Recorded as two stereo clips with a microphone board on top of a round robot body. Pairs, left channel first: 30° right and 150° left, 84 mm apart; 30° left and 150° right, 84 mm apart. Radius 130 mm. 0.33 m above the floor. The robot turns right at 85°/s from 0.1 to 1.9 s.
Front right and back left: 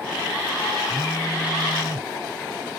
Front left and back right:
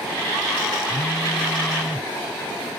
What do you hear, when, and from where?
0.9 s a phone buzzing: 35° left; by 2.1 s 120° left